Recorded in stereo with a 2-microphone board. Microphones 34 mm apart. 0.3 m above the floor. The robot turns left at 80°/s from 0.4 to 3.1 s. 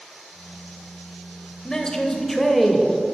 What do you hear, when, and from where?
1.6 s a man speaking: 20° left (ahead or behind), 0.9 m; by 2.9 s 10° right (ahead or behind), 0.9 m